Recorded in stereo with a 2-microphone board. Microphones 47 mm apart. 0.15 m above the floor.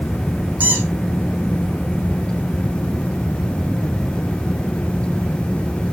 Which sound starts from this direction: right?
A squeak, at 0.6 s.